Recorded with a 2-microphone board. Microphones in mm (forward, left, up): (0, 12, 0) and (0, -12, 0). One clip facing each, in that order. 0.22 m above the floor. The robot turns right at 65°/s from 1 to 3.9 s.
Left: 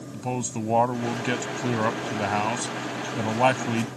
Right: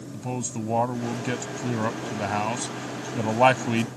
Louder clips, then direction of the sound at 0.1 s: Left 2 dB; 20° left (ahead or behind).